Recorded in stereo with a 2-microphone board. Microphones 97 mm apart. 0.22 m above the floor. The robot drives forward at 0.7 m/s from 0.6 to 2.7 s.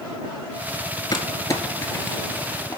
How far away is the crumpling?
About 1.2 m.